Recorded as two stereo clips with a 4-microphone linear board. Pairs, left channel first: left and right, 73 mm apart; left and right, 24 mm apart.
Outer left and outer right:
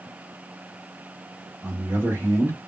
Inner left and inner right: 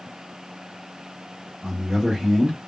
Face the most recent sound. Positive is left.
turn(degrees=-25)  # may be behind; listen again after turning